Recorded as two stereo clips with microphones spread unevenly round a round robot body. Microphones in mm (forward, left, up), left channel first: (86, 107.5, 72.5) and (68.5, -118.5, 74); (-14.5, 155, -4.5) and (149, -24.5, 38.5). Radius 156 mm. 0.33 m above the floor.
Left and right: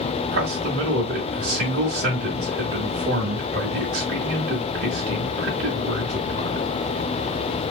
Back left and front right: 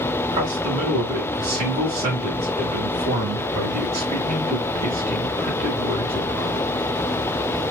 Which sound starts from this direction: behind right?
A man speaking, at 0.3 s.